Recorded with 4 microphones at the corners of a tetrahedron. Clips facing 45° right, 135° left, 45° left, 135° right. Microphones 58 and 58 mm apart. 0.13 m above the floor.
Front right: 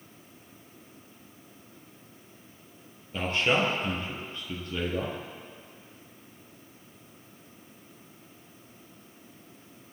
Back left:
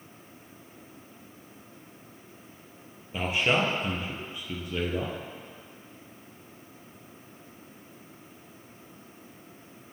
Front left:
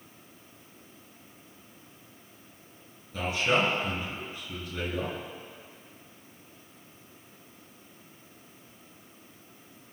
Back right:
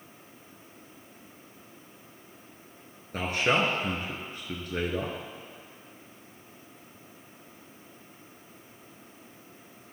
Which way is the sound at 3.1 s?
145° right.